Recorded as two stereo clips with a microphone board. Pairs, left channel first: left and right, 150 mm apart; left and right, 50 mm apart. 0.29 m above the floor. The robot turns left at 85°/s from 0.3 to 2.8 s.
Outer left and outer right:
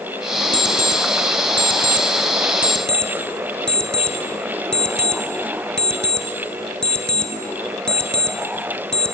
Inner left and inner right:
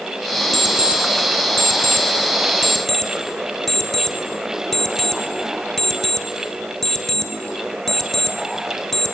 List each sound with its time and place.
0.5 s an alarm clock: 10° left (ahead or behind), 1.6 m; by 9.2 s 5° left (ahead or behind), 1.6 m